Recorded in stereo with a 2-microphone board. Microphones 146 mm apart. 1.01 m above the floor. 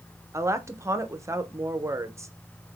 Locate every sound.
0.3 s a woman speaking: 20° right (ahead or behind), 0.6 m